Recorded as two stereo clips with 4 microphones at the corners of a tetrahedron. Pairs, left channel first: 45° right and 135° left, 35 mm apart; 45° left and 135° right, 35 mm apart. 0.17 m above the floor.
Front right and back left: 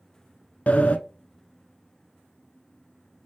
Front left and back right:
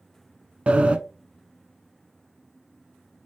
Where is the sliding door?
85° right, 0.5 m.